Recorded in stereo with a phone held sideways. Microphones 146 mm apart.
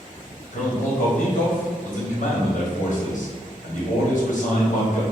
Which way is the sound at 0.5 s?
60° left (ahead or behind).